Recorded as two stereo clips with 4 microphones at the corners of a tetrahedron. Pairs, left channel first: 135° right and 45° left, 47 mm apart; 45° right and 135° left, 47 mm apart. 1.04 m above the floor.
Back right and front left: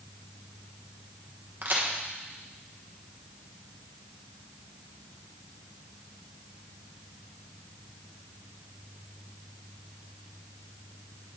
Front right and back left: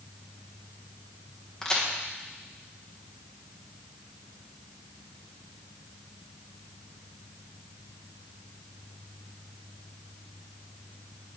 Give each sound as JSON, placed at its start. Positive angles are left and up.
{"t": 1.6, "sound": "a crack", "azimuth_deg": 25, "distance_m": 1.1}